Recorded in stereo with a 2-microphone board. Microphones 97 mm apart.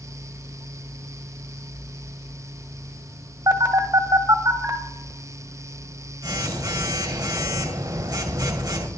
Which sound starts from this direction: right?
A phone buzzing, at 3.5 s.